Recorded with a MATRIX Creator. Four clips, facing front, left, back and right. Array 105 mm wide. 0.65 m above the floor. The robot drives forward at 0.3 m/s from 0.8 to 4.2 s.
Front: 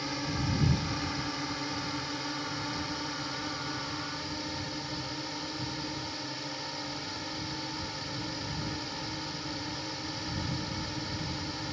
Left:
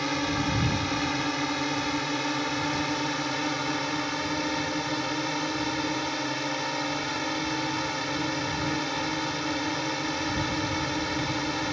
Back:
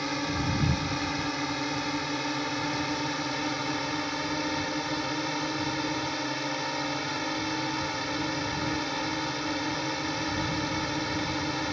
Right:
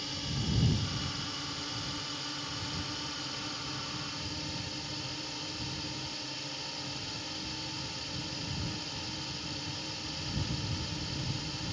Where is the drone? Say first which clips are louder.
Left 12 dB, back 4 dB; 110° left; by 11.7 s 120° left.